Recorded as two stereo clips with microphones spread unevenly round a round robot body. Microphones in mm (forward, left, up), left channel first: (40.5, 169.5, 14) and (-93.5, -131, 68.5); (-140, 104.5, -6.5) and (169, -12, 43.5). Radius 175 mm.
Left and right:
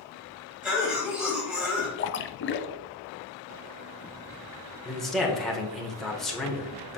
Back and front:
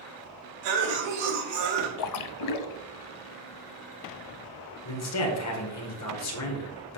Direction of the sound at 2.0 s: 125° left.